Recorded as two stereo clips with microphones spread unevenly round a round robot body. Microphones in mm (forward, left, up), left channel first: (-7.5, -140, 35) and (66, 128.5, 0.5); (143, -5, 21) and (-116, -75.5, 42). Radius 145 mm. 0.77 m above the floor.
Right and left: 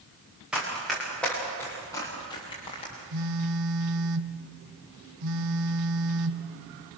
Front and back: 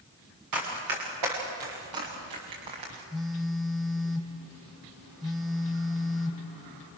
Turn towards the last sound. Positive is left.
turn(degrees=110)